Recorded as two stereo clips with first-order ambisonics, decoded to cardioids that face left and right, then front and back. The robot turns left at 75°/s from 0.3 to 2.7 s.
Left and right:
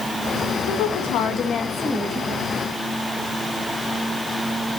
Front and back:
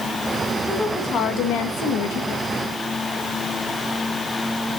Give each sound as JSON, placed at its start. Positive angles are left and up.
{"t": 0.7, "sound": "a woman speaking", "azimuth_deg": 90, "distance_m": 1.8}